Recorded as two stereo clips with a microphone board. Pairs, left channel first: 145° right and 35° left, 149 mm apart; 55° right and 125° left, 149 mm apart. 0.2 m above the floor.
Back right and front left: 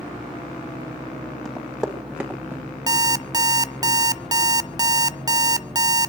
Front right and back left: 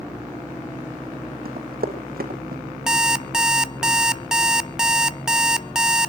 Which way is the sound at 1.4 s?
125° left.